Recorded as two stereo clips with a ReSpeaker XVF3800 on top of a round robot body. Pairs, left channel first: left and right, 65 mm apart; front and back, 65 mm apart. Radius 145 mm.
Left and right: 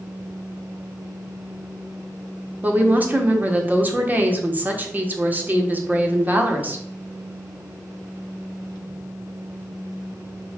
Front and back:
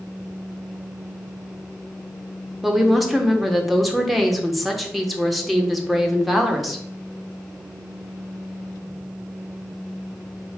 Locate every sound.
2.6 s a woman speaking: 90° right, 1.0 m